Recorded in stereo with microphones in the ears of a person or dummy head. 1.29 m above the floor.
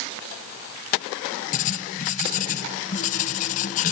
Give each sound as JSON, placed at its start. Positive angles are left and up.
{"t": 1.5, "sound": "writing", "side_deg": 40, "distance_m": 0.6}